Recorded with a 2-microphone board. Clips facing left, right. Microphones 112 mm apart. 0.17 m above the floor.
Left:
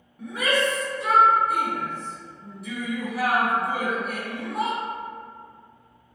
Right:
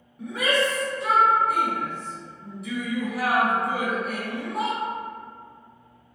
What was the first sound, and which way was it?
A shout, centre (ahead or behind).